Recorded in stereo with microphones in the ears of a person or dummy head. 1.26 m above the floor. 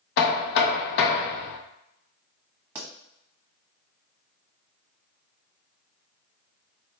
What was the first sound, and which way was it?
Knocking, 55° left (ahead or behind).